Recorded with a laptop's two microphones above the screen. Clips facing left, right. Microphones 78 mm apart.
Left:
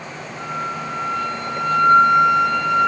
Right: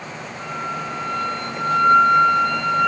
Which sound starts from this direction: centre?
A flute, at 0.4 s.